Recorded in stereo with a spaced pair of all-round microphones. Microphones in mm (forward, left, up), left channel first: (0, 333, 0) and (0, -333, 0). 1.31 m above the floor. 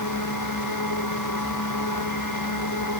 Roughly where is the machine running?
Left.